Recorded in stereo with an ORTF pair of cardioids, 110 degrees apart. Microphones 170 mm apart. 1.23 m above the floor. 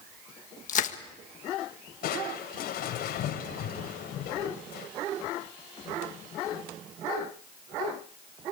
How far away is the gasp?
No gasp in this recording.